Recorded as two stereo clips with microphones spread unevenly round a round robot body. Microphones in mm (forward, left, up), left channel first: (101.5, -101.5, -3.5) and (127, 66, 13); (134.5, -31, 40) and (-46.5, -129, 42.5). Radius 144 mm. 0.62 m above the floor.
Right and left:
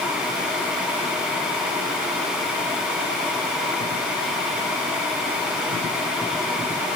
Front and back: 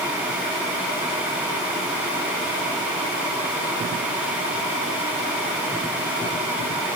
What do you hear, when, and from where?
Only background noise.